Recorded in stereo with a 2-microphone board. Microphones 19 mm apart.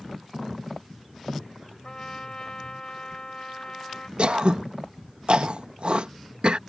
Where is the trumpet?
40° left (ahead or behind).